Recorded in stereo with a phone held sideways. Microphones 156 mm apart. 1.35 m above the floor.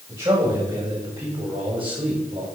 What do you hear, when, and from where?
0.1 s a man speaking: 30° right (ahead or behind), 7 m; by 2.5 s 40° right (ahead or behind), 6 m